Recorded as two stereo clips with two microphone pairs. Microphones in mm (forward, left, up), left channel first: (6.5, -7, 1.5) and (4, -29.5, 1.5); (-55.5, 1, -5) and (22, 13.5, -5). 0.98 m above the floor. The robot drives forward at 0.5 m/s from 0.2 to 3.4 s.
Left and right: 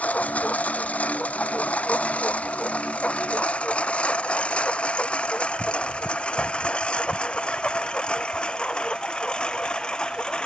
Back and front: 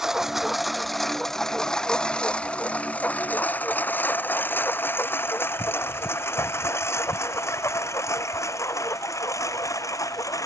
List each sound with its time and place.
0.0 s a lawn mower: 95° left; by 10.5 s 140° left